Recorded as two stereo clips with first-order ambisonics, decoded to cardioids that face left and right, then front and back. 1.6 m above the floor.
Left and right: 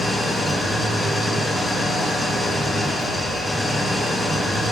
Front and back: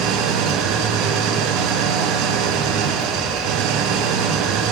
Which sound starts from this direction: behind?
An engine running, at 0.0 s.